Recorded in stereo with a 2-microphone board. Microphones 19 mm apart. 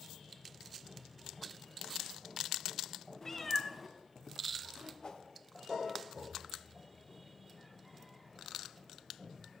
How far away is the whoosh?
About 0.7 m.